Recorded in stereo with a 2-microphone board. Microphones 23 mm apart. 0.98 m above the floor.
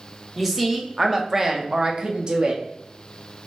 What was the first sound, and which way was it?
A woman speaking, 5° right (ahead or behind).